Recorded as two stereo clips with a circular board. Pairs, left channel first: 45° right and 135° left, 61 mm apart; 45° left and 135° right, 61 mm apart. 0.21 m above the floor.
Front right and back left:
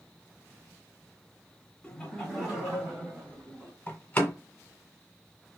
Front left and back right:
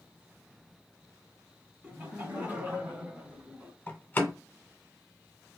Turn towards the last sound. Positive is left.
turn(degrees=5)